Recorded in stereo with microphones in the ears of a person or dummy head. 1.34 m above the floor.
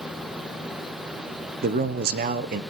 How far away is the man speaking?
About 0.7 m.